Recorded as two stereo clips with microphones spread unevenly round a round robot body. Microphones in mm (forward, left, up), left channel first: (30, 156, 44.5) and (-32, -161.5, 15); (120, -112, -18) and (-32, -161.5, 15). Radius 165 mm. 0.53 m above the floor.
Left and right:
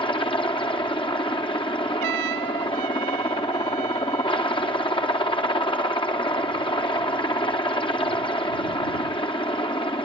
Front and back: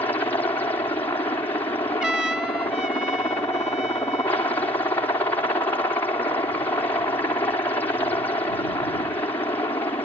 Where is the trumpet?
75° right.